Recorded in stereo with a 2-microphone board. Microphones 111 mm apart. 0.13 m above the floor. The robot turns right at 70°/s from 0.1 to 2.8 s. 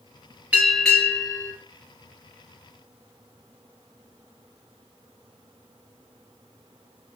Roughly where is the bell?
Ahead.